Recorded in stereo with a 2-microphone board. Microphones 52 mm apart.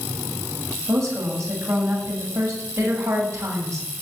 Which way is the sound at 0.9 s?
65° right (ahead or behind).